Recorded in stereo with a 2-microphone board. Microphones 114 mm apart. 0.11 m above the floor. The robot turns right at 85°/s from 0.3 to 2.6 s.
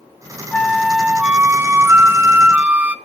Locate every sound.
0.5 s a flute: 10° left (ahead or behind), 0.6 m; by 3.0 s 10° right (ahead or behind), 0.6 m